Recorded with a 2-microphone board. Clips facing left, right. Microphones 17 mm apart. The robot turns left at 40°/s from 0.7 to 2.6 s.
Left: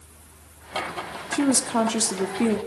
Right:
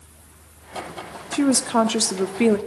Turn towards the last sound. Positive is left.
turn(degrees=-65)